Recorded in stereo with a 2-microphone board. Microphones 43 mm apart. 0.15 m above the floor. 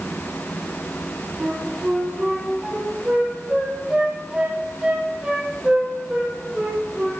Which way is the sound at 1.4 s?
20° right (ahead or behind).